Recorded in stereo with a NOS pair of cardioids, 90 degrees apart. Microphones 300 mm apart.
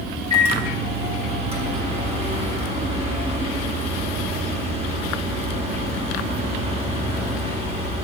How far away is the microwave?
About 1.5 m.